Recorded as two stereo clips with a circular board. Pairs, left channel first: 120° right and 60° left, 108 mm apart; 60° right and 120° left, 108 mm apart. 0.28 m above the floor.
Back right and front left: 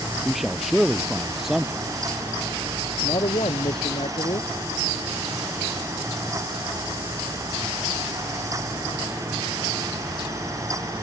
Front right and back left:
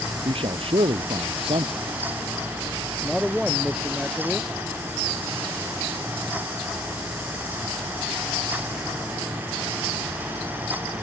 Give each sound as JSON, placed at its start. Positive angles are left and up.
{"t": 0.2, "sound": "a man speaking", "azimuth_deg": 150}
{"t": 3.0, "sound": "a man speaking", "azimuth_deg": -155}